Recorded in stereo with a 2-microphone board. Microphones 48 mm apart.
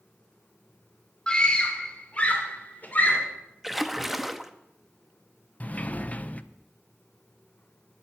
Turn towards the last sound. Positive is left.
turn(degrees=30)  # may be behind; listen again after turning